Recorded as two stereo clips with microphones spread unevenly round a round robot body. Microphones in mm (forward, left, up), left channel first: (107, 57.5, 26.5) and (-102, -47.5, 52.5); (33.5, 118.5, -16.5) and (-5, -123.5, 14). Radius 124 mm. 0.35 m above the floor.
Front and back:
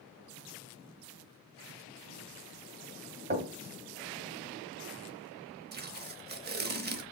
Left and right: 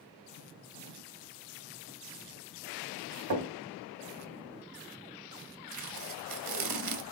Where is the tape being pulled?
105° right, 1.1 m.